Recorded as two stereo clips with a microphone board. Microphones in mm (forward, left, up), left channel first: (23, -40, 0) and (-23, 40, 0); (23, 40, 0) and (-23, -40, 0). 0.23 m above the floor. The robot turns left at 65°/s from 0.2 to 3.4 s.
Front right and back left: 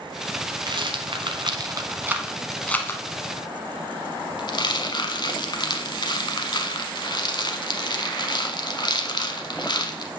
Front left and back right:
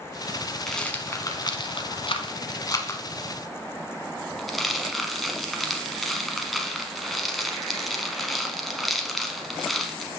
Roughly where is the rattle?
Behind left.